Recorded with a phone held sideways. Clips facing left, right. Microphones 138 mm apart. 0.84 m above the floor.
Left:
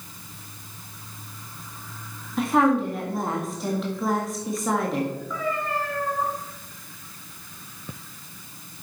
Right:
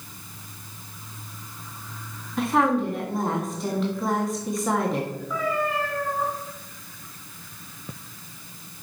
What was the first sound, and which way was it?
A woman speaking, centre (ahead or behind).